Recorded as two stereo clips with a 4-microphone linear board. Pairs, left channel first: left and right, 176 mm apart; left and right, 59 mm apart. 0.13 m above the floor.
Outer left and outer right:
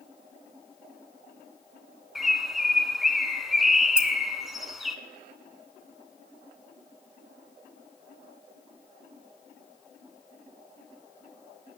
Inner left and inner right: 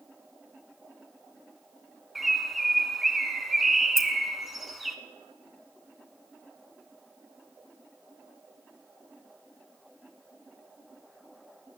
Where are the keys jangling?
5° right (ahead or behind), 1.1 m.